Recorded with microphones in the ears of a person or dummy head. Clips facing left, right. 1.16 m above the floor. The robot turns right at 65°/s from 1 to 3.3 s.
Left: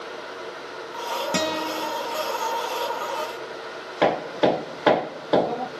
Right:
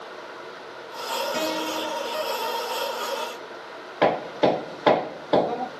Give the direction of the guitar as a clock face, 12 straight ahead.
9 o'clock.